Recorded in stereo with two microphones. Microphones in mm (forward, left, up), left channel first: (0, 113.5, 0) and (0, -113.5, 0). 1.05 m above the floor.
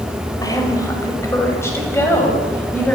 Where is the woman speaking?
15° left (ahead or behind), 5.5 m; by 3.0 s 5° left (ahead or behind), 7.5 m.